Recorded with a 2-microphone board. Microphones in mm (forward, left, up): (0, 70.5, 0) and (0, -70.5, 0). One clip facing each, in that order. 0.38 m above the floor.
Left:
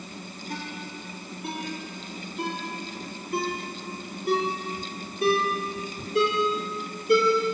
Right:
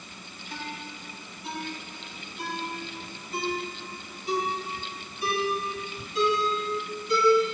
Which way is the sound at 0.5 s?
60° left (ahead or behind).